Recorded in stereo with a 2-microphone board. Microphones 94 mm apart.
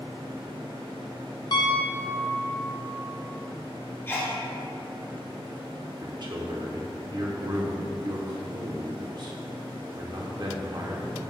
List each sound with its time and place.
1.5 s a piano: 45° left (ahead or behind), 0.5 m
4.1 s a sneeze: 25° left (ahead or behind), 1.3 m
6.0 s a man speaking: 50° right (ahead or behind), 0.9 m